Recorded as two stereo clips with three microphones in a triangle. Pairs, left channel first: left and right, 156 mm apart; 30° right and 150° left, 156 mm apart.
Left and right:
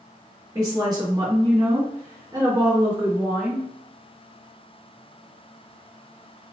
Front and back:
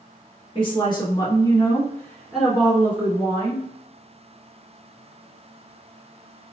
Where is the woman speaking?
45° right, 2.0 m; by 3.7 s 155° right, 2.5 m.